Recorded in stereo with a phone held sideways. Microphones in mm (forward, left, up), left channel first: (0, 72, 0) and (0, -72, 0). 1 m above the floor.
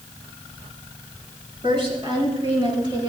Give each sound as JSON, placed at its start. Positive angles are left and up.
{"t": 1.6, "sound": "a woman speaking", "side_deg": -35, "distance_m": 6.5}